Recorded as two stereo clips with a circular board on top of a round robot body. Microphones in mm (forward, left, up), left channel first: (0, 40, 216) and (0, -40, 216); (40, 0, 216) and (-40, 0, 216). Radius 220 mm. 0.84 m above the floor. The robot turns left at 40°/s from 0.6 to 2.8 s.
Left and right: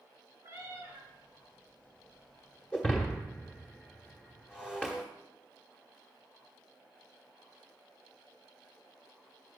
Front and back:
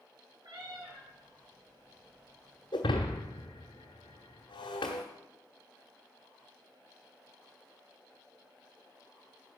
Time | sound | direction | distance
0.4 | a cat meowing | 145° right | 4 m
2.7 | breaking glass | 15° left | 0.6 m